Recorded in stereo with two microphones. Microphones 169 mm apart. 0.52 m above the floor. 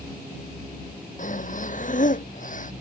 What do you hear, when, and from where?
1.2 s breathing: 50° left (ahead or behind)